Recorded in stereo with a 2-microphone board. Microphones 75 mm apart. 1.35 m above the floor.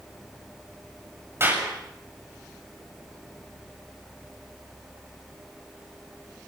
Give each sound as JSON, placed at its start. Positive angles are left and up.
{"t": 1.4, "sound": "a clap", "side_deg": -30, "distance_m": 7.0}